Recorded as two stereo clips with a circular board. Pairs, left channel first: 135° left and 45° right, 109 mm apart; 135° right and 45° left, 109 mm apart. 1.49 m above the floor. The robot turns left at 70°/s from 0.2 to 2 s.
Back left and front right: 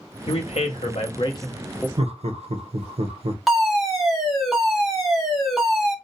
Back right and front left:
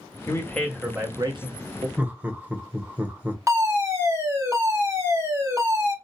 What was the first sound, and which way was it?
A man speaking, 165° left.